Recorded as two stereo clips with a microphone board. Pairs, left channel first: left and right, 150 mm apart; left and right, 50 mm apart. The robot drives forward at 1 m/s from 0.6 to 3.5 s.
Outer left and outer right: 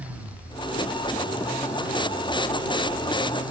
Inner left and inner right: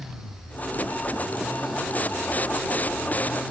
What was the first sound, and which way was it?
Only background noise.